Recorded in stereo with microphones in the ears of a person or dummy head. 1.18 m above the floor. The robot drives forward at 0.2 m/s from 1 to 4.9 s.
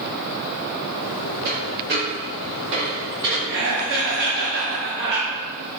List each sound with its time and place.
1.4 s a dropped coin: 50° right (ahead or behind), 1.8 m; by 3.4 s 60° right (ahead or behind), 1.6 m
3.5 s laughter: 55° right (ahead or behind), 1.2 m; by 5.3 s 50° right (ahead or behind), 1.4 m